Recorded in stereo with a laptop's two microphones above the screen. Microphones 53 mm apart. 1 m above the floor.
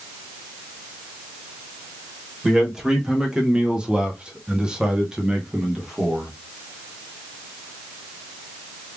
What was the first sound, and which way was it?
A man speaking, 10° right (ahead or behind).